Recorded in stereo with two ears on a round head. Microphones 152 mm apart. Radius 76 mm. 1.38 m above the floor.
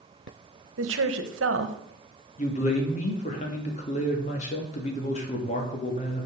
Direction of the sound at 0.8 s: 85° right.